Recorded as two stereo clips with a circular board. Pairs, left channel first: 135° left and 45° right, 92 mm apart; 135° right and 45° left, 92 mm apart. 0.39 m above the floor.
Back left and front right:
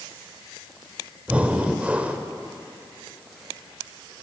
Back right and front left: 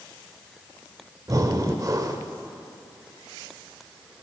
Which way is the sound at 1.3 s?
25° left.